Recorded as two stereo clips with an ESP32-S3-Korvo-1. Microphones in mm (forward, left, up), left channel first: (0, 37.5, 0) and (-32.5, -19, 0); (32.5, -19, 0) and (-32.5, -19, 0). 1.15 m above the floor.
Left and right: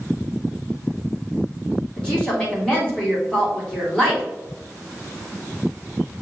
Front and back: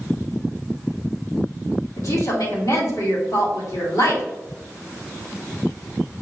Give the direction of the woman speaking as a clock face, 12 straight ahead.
12 o'clock.